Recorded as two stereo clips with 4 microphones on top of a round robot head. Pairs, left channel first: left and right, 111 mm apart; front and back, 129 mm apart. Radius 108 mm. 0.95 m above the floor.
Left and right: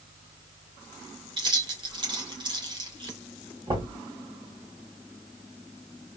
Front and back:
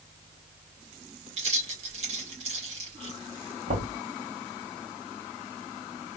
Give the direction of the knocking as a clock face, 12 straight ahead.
5 o'clock.